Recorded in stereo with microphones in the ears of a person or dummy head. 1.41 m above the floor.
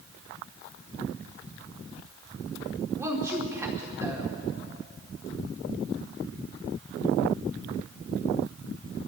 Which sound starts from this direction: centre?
A woman speaking, at 3.0 s.